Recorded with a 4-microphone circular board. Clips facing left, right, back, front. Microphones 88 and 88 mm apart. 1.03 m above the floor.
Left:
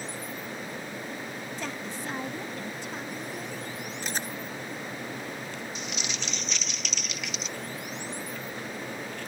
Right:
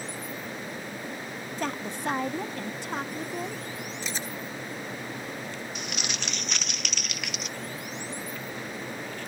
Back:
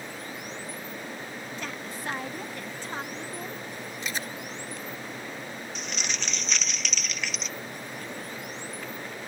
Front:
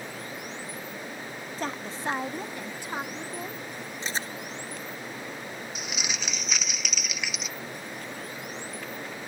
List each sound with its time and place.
1.6 s a woman speaking: 50° right; by 3.6 s 80° right
4.0 s chewing: 60° left
5.8 s crumpling: 80° right